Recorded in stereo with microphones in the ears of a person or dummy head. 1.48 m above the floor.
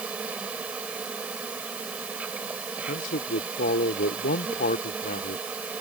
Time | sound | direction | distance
0.0 | an insect | 5° right (ahead or behind) | ?
2.9 | a man speaking | 45° left (ahead or behind) | ?